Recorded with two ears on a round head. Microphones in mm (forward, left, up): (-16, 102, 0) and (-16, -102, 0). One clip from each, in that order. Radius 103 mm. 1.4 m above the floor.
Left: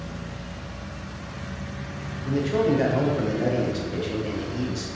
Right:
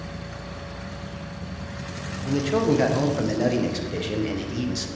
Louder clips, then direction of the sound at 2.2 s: Even; 30° right (ahead or behind).